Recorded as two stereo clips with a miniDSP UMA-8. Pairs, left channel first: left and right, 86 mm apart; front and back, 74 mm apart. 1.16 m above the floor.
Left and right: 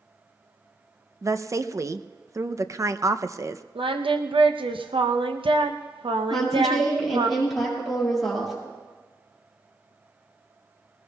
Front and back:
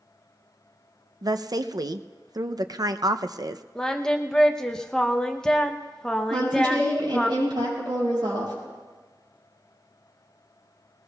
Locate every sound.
1.2 s a woman speaking: 145° right, 0.5 m
3.8 s singing: 80° right, 0.7 m
6.3 s a woman speaking: straight behind, 6.5 m